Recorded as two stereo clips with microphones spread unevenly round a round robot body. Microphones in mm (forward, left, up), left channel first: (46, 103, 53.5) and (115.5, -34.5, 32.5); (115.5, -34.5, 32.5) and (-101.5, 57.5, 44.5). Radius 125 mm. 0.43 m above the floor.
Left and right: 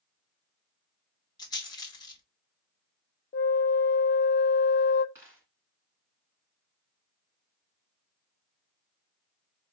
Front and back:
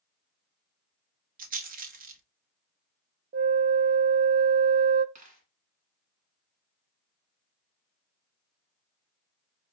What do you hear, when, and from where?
1.4 s a rattle: 175° left, 0.9 m
3.3 s a flute: 105° left, 0.5 m
5.2 s a dropped coin: 140° right, 1.6 m